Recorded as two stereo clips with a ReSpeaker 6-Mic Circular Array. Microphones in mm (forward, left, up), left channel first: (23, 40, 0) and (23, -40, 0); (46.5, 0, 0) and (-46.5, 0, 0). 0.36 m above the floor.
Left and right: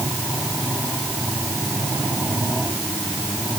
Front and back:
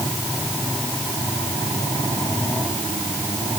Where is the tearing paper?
I don't hear tearing paper.